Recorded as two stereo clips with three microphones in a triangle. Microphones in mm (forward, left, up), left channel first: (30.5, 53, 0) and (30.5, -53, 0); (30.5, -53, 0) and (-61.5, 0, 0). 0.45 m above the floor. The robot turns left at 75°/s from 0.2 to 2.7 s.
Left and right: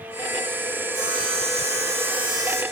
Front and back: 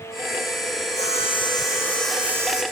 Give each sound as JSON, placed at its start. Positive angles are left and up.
{"t": 0.9, "sound": "sawing", "azimuth_deg": -30, "distance_m": 10.0}